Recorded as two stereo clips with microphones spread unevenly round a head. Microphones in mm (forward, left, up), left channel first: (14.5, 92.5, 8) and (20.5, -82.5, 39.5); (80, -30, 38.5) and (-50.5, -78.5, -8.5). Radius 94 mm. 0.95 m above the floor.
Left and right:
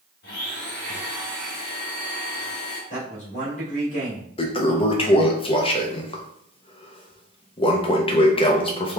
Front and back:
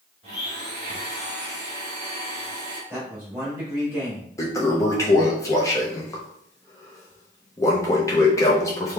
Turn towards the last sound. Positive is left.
turn(degrees=105)